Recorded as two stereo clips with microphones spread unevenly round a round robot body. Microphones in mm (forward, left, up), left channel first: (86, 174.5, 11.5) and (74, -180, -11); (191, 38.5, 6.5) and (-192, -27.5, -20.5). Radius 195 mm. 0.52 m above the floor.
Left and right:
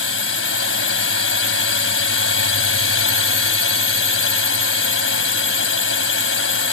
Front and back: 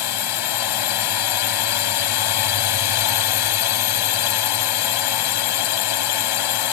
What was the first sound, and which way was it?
A drone, 35° left.